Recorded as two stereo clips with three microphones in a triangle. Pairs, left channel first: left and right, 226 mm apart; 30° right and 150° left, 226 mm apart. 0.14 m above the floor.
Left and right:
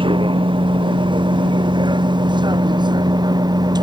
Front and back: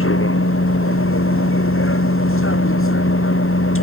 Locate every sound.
0.0 s a vehicle: 25° right; by 3.8 s 20° right